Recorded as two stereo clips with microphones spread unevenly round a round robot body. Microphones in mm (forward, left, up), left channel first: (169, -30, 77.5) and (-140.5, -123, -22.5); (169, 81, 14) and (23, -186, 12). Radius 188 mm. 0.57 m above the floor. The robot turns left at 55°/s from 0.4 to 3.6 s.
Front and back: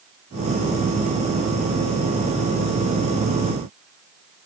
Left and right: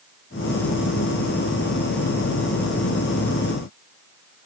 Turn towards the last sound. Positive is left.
No sound to turn to.